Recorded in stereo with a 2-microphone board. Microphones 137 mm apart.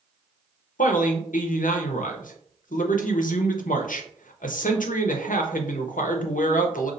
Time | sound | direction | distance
0.8 | a man speaking | 80° left | 0.7 m